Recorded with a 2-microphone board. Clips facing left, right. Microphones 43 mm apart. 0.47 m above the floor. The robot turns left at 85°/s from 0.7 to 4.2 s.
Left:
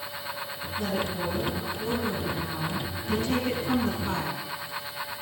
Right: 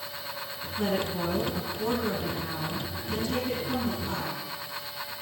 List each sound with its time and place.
0.8 s a woman speaking: 40° right, 5 m; by 4.5 s 25° left, 5 m